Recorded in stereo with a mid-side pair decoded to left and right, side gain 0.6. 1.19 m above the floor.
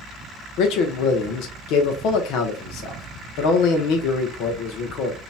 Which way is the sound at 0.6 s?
70° left.